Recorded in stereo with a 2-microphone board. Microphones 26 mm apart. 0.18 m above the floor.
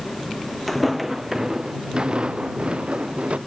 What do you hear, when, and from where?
0.7 s footsteps: centre (ahead or behind); by 3.4 s 50° right (ahead or behind)